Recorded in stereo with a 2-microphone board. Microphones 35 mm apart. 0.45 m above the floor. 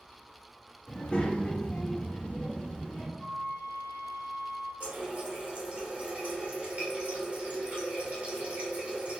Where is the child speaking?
25° left (ahead or behind), 0.7 m; by 3.1 s 20° left (ahead or behind), 1.1 m.